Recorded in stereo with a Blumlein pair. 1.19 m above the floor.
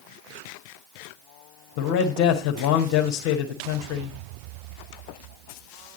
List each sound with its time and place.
1.8 s a man speaking: 45° left, 1.8 m